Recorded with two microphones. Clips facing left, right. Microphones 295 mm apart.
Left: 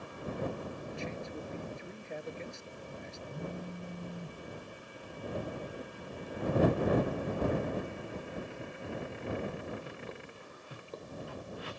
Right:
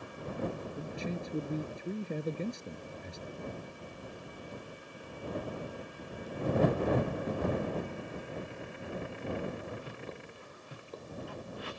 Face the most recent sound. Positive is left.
turn(degrees=60)  # may be behind; listen again after turning